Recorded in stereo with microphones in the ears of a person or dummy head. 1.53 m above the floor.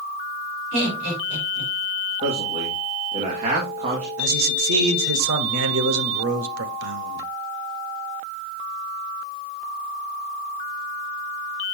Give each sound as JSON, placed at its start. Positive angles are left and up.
{"t": 0.7, "sound": "laughter", "side_deg": -65, "distance_m": 3.5}
{"t": 2.2, "sound": "a man speaking", "side_deg": -35, "distance_m": 1.8}
{"t": 4.2, "sound": "a man speaking", "side_deg": -75, "distance_m": 1.0}